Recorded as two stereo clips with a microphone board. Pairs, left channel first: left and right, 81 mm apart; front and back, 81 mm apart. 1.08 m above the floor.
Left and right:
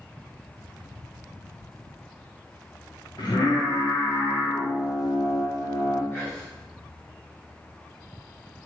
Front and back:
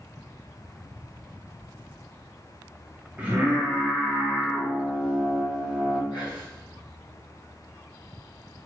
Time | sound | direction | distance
3.2 | singing | 110° left | 1.0 m
6.1 | whispering | 25° left | 1.6 m